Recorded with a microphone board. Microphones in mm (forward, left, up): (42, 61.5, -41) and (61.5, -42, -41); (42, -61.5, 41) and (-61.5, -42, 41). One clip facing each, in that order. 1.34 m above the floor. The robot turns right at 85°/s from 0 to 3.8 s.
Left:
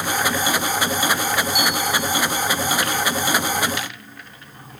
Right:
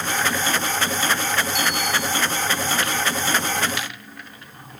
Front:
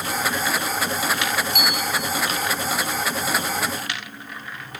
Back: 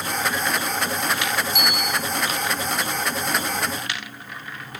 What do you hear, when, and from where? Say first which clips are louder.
1.5 s a bicycle bell: left 2 dB, even; 15° left; by 2.1 s 65° left